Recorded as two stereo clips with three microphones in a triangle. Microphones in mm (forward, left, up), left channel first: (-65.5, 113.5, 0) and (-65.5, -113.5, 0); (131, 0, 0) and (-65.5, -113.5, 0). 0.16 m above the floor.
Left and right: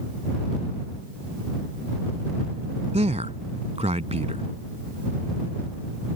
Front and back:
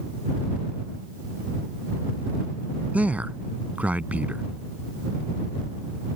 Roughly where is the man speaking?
Right.